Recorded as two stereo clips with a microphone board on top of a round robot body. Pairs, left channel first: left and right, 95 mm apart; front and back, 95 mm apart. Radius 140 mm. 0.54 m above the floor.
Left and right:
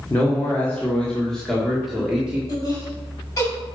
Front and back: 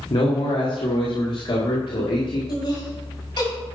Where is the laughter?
30° left, 4.5 m.